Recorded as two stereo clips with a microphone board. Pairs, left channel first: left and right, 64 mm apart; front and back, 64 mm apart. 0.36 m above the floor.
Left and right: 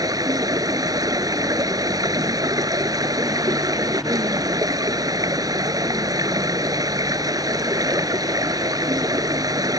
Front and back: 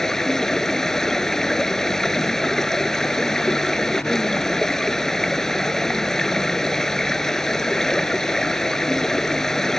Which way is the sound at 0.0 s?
85° right.